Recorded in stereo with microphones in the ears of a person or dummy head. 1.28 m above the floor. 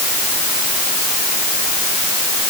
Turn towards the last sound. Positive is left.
No sound to turn to.